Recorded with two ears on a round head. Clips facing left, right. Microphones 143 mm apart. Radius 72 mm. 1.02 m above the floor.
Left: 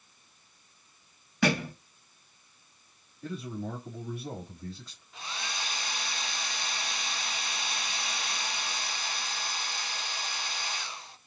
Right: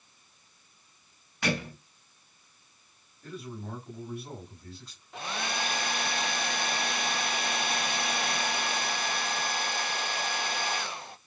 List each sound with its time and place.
1.4 s a thud: 75° left (ahead or behind), 3.5 m
3.2 s a man speaking: 80° left, 5 m
5.1 s a hair dryer: 45° right (ahead or behind), 0.6 m